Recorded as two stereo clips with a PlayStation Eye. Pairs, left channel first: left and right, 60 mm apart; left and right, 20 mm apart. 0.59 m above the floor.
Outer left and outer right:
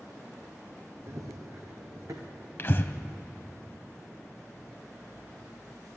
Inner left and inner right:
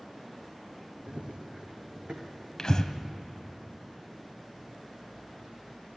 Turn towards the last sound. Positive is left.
turn(degrees=40)  # may be behind; listen again after turning